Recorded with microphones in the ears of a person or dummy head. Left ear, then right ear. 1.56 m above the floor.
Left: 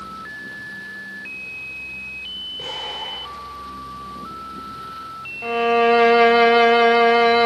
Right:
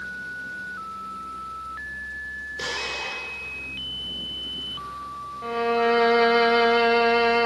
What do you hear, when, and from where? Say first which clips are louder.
2.6 s an explosion: right 2 dB; 75° right (ahead or behind), 6.5 m
5.4 s a violin: left 5 dB; 20° left (ahead or behind), 0.7 m